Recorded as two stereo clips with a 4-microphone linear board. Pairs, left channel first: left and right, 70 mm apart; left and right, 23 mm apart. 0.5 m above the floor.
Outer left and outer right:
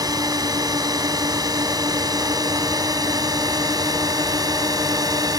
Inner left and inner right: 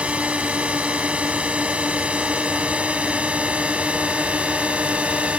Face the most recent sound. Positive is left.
turn(degrees=-65)  # may be behind; listen again after turning